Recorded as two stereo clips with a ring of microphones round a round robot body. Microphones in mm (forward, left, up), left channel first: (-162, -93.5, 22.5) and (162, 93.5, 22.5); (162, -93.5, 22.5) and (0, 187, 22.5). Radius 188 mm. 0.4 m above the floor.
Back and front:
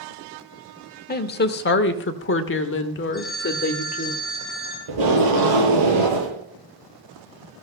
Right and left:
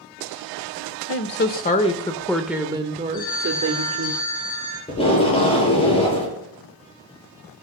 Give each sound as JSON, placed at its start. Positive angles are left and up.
{"t": 1.1, "sound": "a woman speaking", "azimuth_deg": -95, "distance_m": 1.1}
{"t": 3.1, "sound": "a phone ringing", "azimuth_deg": -60, "distance_m": 7.5}
{"t": 4.9, "sound": "tape being pulled", "azimuth_deg": 10, "distance_m": 9.0}